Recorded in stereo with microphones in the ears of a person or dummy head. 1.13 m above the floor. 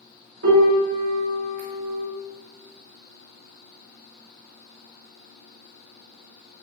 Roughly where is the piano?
Right.